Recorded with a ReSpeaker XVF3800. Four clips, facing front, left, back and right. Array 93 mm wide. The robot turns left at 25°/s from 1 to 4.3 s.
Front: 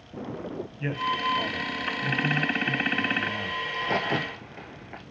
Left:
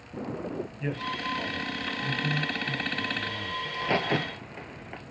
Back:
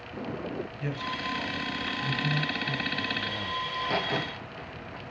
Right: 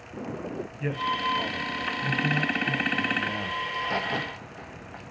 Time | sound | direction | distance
0.8 | a man speaking | 15° right | 1.2 m
3.6 | a crack | 75° left | 1.5 m